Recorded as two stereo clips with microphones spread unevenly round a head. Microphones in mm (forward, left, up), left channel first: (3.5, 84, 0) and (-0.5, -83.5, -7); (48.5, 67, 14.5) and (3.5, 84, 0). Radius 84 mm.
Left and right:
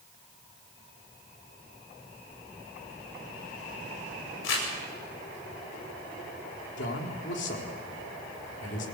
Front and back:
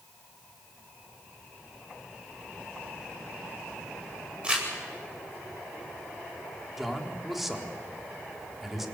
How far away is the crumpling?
About 9.5 m.